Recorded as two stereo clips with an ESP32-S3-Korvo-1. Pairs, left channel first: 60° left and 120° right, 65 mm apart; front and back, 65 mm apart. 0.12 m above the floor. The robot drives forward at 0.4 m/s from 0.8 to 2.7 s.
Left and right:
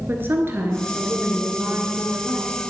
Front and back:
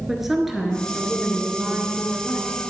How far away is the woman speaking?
About 1.9 m.